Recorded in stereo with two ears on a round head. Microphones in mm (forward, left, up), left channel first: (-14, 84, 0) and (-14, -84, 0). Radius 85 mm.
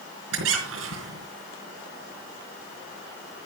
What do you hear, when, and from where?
0.3 s a squeak: 80° right, 4 m